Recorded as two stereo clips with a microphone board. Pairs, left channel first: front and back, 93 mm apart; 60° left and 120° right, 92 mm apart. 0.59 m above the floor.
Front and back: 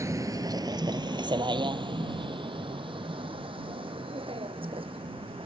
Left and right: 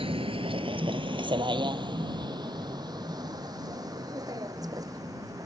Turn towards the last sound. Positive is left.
turn(degrees=-170)